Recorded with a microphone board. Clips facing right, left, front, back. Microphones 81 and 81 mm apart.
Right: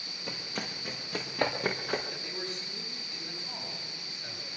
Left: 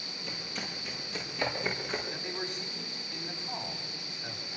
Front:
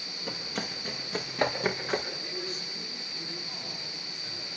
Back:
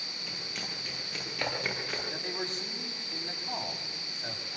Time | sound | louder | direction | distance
0.3 | running footsteps | right 3 dB, front 7 dB | 45° right | 5.5 m
2.1 | a man speaking | left 2 dB, back 1 dB | 160° left | 9 m